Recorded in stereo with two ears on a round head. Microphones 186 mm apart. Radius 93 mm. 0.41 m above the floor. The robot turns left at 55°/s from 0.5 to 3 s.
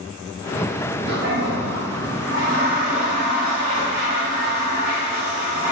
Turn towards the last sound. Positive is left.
turn(degrees=-150)